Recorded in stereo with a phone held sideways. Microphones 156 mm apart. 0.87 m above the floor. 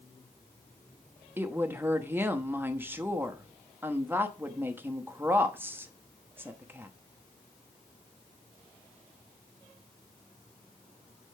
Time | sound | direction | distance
1.4 | a woman speaking | 15° right (ahead or behind) | 0.9 m